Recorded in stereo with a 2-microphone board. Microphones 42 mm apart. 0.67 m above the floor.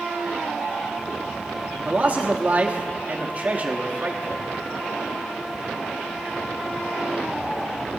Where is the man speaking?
40° right (ahead or behind), 1.2 m.